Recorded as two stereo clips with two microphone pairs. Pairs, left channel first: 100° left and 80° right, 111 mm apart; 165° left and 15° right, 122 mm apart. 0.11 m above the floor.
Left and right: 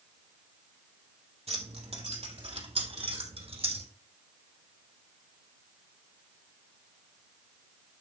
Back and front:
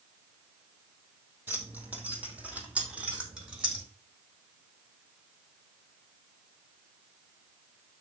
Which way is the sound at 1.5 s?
90° right.